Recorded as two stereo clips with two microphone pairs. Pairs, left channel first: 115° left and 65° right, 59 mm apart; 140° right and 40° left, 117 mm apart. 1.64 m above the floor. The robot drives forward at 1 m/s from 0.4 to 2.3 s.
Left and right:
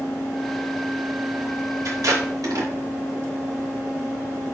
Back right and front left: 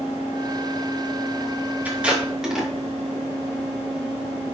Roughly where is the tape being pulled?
Ahead right.